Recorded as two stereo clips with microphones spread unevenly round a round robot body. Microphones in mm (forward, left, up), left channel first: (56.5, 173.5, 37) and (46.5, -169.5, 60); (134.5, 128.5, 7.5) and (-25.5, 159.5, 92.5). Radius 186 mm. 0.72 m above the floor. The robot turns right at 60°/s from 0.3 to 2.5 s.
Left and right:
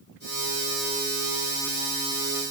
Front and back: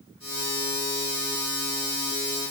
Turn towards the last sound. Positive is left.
No sound to turn to.